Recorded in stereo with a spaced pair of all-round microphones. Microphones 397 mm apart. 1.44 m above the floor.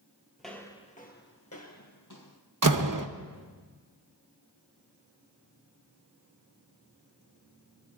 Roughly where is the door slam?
Right.